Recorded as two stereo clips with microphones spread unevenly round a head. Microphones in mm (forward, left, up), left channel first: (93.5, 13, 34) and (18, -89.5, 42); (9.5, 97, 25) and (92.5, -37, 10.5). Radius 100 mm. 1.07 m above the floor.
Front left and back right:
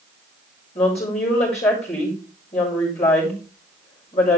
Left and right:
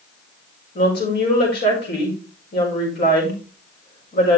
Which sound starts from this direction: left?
A woman speaking, at 0.8 s.